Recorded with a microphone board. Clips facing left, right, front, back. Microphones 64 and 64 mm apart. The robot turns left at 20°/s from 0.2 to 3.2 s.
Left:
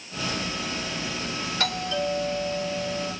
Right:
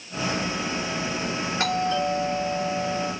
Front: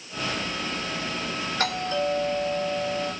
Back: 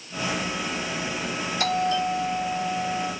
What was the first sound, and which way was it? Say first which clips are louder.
A doorbell: right 4 dB, back 3 dB; 30° right.